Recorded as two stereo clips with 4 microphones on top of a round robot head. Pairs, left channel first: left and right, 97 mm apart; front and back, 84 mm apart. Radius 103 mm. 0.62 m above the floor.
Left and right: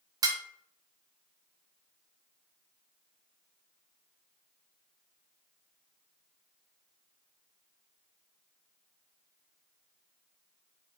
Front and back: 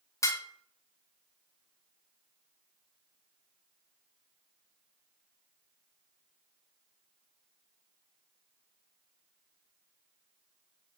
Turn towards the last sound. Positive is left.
turn(degrees=-45)